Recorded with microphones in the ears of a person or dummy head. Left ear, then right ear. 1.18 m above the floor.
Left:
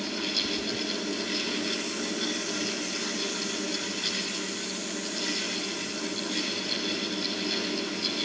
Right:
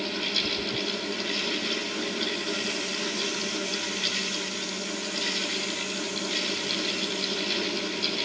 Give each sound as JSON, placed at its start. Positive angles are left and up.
{"t": 0.0, "sound": "a fan", "side_deg": -30, "distance_m": 8.0}